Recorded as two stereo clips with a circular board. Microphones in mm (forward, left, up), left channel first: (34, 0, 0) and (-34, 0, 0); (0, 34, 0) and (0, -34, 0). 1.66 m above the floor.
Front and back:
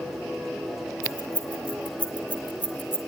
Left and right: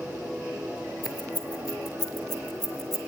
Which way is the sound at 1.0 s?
75° left.